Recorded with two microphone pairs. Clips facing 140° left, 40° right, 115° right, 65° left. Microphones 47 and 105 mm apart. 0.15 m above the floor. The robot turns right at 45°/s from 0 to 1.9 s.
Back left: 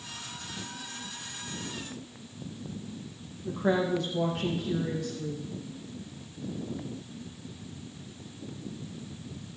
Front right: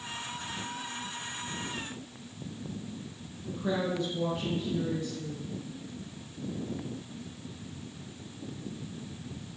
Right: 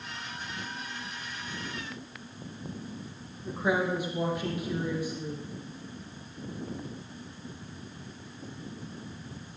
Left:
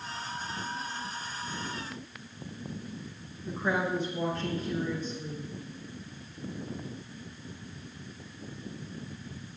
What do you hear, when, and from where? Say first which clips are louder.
3.4 s a woman speaking: back left 4 dB, right 2 dB; 165° left, 5 m